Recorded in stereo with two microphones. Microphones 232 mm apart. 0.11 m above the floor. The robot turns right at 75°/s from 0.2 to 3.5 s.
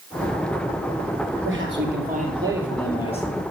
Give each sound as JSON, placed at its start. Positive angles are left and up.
{"t": 1.4, "sound": "a man speaking", "azimuth_deg": -95, "distance_m": 2.5}